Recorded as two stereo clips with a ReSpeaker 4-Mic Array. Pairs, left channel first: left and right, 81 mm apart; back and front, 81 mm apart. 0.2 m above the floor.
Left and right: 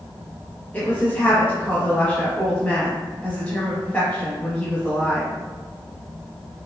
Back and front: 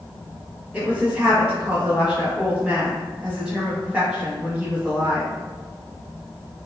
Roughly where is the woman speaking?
Ahead left.